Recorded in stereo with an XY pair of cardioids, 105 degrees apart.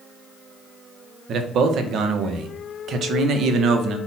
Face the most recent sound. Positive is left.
turn(degrees=-70)